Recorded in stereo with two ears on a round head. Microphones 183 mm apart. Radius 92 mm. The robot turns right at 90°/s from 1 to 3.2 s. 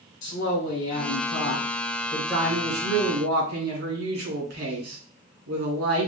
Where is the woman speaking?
60° left, 3 m; by 6.1 s 100° right, 3 m.